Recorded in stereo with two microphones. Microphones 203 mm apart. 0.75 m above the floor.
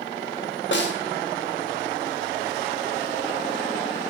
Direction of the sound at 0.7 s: 65° left (ahead or behind).